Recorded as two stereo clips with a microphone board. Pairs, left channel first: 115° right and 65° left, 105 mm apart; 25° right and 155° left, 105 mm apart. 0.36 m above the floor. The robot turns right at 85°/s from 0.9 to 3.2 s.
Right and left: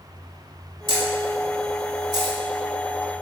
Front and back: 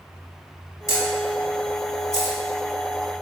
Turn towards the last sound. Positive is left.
turn(degrees=120)